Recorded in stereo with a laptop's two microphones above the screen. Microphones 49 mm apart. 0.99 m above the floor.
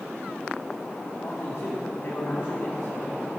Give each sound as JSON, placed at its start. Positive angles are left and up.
{"t": 1.2, "sound": "a man speaking", "side_deg": 65, "distance_m": 1.9}